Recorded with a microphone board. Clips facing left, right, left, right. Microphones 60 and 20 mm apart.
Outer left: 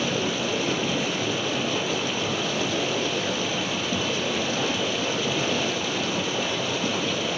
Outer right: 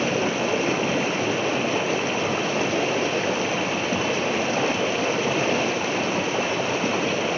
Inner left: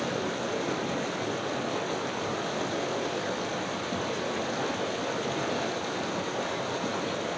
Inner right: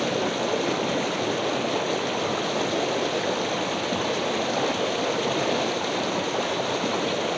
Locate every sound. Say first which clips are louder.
0.0 s running water: outer right 3 dB, inner right 6 dB; 35° right (ahead or behind), 1.4 m